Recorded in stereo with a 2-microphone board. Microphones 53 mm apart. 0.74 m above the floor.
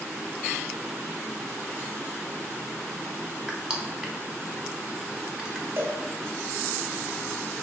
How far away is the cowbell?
About 0.9 m.